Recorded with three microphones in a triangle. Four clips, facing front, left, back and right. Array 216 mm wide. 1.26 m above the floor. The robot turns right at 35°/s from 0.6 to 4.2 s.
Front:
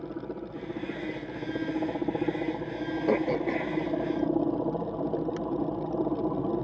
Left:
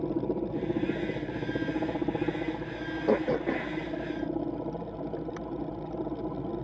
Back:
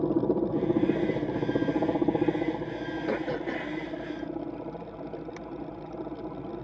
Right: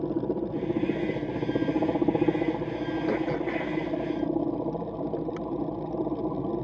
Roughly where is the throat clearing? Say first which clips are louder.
Left 4 dB, front 5 dB; ahead left.